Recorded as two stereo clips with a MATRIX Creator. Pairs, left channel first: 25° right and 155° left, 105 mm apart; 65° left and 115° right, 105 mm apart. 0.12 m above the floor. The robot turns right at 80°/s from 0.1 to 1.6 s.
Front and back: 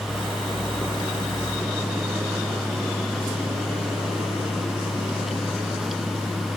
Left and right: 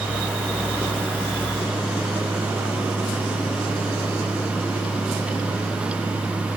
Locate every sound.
Only background noise.